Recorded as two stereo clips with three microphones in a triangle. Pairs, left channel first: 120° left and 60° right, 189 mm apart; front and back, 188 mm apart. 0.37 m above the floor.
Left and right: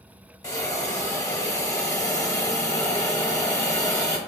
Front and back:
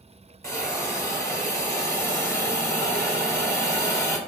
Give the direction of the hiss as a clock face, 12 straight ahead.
10 o'clock.